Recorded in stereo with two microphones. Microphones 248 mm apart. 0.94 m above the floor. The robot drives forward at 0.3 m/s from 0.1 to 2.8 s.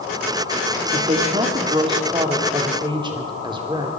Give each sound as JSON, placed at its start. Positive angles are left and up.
{"t": 0.9, "sound": "a woman speaking", "side_deg": -25, "distance_m": 2.0}